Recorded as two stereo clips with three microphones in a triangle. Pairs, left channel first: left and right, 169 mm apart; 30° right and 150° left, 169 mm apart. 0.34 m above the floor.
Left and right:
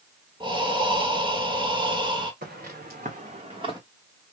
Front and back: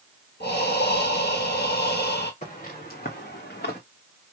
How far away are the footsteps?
About 1.7 m.